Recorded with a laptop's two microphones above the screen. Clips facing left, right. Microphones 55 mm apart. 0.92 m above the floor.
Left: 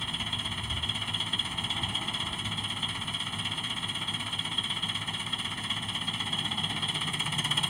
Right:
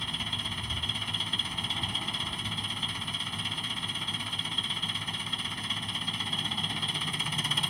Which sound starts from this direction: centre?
An engine running, at 0.0 s.